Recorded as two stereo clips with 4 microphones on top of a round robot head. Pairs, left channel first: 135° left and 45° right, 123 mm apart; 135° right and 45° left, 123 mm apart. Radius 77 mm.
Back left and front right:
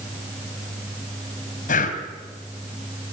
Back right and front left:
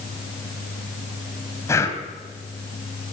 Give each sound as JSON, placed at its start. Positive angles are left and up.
{"t": 1.7, "sound": "breathing", "azimuth_deg": 155, "distance_m": 3.0}